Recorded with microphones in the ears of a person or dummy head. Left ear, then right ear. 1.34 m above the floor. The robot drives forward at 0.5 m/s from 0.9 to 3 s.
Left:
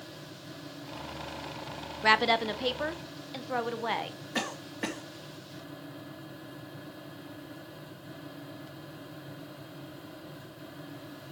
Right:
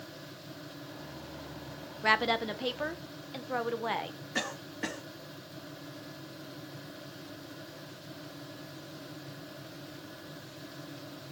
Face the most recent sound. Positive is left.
turn(degrees=15)  # may be behind; listen again after turning